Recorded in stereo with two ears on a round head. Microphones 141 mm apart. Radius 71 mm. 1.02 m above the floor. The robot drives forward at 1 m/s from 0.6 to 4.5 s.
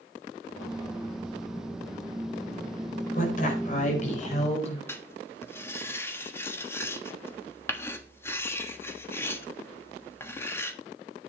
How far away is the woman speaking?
About 4.5 m.